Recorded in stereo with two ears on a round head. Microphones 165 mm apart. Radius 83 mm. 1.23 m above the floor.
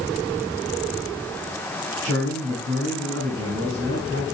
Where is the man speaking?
65° right (ahead or behind), 8 m.